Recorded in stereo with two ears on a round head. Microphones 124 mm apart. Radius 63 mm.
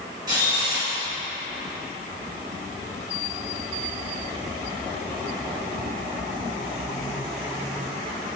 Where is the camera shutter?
30° right (ahead or behind), 1.6 m.